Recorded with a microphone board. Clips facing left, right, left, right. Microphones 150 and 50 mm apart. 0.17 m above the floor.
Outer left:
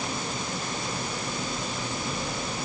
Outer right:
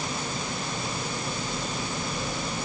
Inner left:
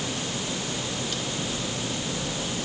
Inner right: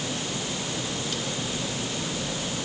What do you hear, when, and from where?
Only background noise.